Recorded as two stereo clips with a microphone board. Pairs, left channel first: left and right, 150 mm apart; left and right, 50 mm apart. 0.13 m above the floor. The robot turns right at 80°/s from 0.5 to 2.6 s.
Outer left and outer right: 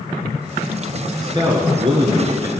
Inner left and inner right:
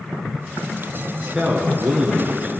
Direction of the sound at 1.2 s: 135° right.